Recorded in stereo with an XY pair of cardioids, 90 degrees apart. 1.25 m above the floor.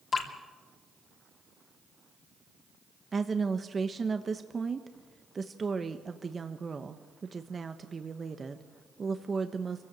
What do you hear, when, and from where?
0.1 s dripping: 45° left, 3 m
3.1 s a woman speaking: 35° right, 1.2 m